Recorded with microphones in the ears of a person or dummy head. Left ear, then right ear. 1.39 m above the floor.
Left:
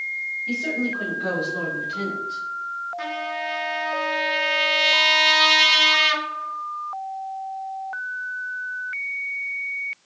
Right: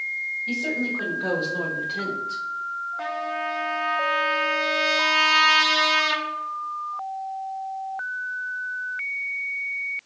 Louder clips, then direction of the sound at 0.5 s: Left 1 dB; 10° left (ahead or behind).